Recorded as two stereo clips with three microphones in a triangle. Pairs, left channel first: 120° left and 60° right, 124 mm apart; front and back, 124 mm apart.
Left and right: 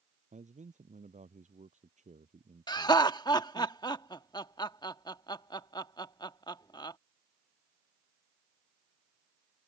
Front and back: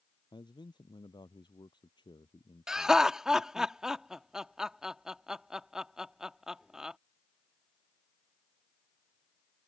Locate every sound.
0.3 s a man speaking: 50° right
2.7 s laughter: 100° left